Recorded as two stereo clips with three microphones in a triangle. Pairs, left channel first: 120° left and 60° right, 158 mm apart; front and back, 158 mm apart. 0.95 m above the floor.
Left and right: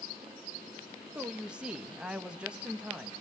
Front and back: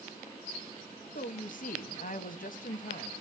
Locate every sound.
1.1 s a woman speaking: 25° left, 0.8 m